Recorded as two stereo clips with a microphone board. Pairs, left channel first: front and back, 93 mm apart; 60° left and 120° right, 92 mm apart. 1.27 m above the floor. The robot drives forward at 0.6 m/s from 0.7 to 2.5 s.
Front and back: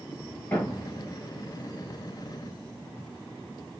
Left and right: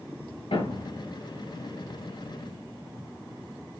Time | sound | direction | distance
0.5 | a thud | 70° left | 5.5 m